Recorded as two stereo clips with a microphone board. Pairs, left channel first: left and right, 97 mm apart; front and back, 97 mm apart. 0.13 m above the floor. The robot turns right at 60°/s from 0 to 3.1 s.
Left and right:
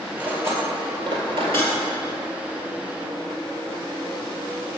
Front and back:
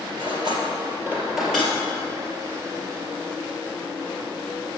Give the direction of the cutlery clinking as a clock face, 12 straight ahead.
6 o'clock.